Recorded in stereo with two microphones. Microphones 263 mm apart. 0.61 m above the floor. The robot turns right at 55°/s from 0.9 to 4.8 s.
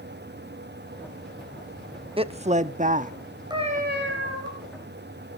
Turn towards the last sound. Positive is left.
turn(degrees=-95)